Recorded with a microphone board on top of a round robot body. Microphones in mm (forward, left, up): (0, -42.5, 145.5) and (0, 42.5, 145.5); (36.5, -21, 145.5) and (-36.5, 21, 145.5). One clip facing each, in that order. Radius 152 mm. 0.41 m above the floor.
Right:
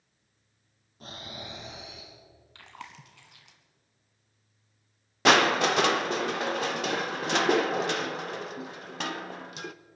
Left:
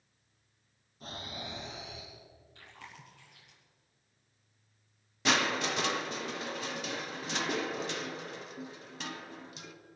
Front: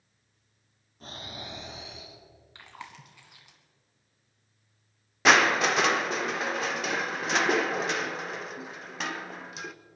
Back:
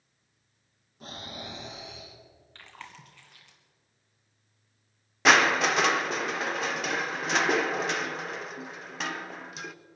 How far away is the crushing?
About 0.6 m.